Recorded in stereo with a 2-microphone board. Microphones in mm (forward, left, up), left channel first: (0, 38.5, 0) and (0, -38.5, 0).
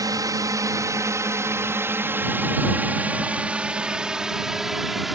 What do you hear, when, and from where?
0.0 s a drone: 50° right (ahead or behind); by 5.2 s centre (ahead or behind)